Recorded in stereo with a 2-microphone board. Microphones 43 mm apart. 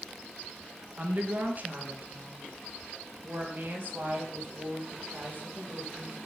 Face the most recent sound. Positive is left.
turn(degrees=-50)  # may be behind; listen again after turning